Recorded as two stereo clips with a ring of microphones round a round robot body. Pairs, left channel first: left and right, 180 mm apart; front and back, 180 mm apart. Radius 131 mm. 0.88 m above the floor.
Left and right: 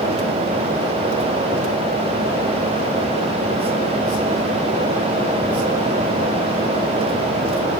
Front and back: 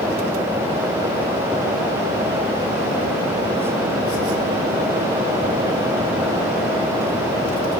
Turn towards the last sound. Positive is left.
No sound to turn to.